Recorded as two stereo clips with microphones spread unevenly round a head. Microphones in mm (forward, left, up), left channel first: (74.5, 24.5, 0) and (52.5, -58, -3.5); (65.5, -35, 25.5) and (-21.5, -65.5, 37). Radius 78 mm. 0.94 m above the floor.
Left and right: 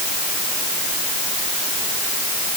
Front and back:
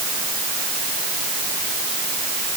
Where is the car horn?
No car horn in this recording.